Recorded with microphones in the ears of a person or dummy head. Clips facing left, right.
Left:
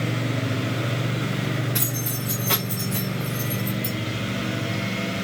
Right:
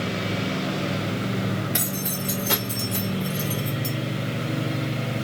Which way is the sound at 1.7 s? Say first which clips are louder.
Right 1 dB; 30° right (ahead or behind).